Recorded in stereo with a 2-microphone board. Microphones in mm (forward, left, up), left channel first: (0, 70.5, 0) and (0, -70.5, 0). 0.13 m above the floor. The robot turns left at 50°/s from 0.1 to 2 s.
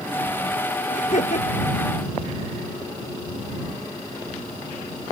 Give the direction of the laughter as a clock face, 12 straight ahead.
8 o'clock.